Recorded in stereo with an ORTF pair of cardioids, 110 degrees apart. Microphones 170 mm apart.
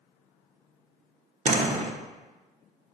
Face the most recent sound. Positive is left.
turn(degrees=-45)